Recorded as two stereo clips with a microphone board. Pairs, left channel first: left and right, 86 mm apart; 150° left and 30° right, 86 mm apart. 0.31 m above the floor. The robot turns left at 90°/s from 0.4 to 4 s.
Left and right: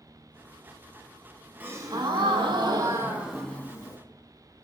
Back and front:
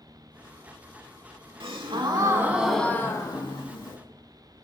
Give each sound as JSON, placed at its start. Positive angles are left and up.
{"t": 1.6, "sound": "a gasp", "azimuth_deg": -20, "distance_m": 0.6}